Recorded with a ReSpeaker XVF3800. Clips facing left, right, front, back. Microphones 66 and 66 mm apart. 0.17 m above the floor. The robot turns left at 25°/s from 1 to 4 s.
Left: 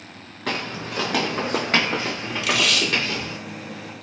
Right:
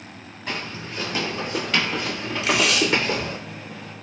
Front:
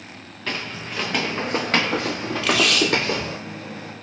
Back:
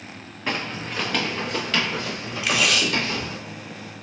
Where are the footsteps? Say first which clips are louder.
Left 4 dB, back 2 dB; 110° left, 0.8 m; by 3.4 s 40° right, 1.2 m.